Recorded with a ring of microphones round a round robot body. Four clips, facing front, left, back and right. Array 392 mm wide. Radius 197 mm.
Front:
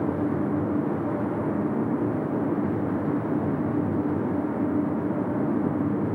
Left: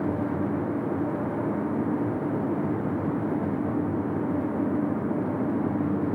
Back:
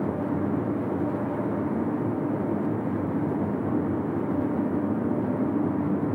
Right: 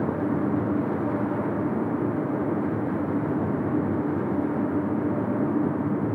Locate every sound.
Only background noise.